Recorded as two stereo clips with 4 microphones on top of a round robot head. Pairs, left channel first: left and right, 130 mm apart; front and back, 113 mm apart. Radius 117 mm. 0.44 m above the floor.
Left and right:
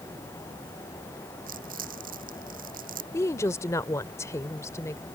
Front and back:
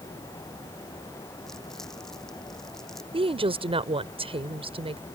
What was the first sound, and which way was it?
Crumpling, 85° right.